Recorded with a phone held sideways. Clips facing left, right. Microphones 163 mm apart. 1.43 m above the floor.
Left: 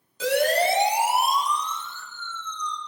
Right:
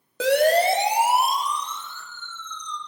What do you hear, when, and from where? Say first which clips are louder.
0.2 s a siren: right 4 dB; 65° right (ahead or behind), 4.5 m; by 2.8 s 55° right (ahead or behind), 7 m